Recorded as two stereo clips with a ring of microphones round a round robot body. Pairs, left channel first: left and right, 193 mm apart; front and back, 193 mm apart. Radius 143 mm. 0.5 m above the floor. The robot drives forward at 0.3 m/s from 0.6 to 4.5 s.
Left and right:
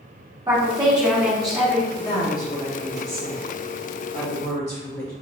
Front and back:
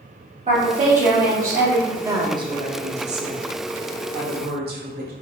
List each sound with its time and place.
0.5 s a woman speaking: 150° right, 1.2 m; by 1.9 s 160° right, 1.4 m
2.0 s a woman speaking: 120° left, 0.7 m; by 5.1 s 165° left, 1.1 m